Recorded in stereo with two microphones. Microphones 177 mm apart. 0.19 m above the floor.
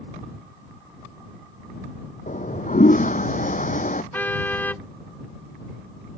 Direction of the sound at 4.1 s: 10° left (ahead or behind).